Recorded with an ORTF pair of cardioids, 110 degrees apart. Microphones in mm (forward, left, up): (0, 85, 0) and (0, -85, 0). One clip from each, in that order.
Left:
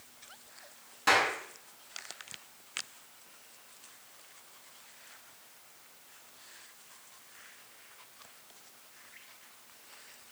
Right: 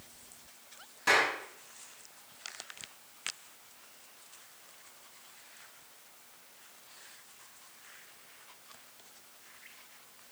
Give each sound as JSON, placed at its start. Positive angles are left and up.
{"t": 1.1, "sound": "a clap", "azimuth_deg": 15, "distance_m": 6.5}